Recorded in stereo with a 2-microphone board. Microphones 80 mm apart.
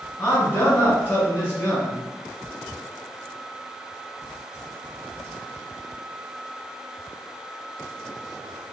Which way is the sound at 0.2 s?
30° left (ahead or behind).